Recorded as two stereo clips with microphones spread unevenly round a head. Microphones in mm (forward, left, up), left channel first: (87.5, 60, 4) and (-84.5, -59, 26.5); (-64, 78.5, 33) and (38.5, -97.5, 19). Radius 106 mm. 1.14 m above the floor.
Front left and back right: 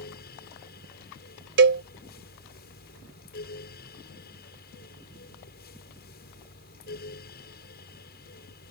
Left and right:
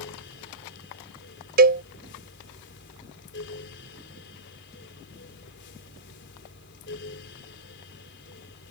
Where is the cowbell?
105° right.